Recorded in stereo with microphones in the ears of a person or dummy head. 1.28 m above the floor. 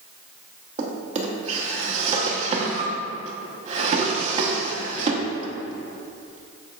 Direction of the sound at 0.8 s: 35° right (ahead or behind).